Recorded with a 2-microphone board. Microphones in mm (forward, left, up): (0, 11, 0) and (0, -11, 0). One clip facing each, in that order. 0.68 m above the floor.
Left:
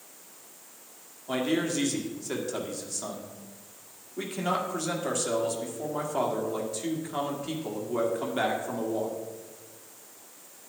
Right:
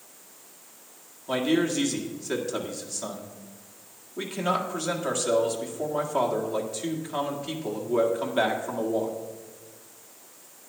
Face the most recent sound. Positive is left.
turn(degrees=-10)  # may be behind; listen again after turning